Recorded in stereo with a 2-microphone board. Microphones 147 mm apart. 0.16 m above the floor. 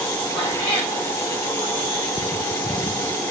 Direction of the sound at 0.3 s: 30° left (ahead or behind).